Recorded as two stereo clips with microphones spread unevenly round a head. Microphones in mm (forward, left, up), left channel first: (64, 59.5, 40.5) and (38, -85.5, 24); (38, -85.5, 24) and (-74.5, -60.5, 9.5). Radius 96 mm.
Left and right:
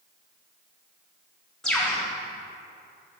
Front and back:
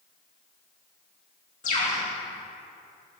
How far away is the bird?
About 1.6 m.